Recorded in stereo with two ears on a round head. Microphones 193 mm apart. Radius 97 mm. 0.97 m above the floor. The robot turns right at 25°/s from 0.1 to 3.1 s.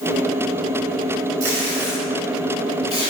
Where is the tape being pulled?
65° right (ahead or behind), 5 m; by 3.1 s 25° right (ahead or behind), 5 m.